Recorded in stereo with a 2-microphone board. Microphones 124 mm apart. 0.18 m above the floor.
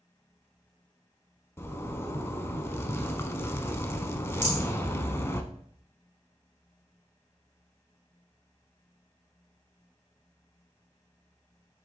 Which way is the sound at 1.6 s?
20° left (ahead or behind).